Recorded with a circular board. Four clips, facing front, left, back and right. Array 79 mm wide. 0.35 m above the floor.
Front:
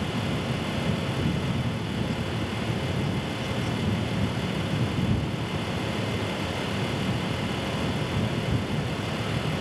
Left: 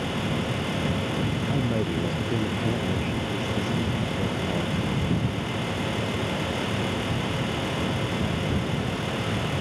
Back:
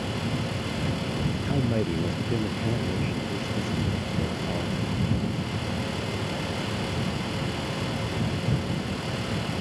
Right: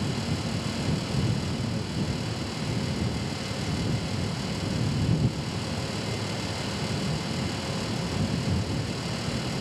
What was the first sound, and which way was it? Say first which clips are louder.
A man speaking: left 6 dB, back 4 dB; 145° left.